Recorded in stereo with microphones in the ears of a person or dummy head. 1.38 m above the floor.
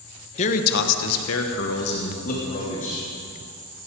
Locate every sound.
0.4 s a man speaking: 40° left (ahead or behind), 1.5 m; by 3.1 s 45° left (ahead or behind), 3.5 m